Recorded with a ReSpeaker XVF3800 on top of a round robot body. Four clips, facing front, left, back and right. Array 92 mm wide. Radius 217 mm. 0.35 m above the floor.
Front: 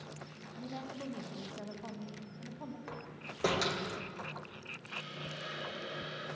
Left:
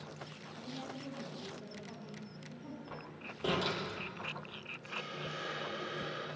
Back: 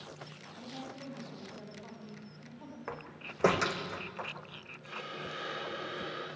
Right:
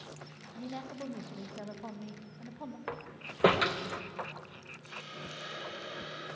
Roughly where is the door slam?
Behind right.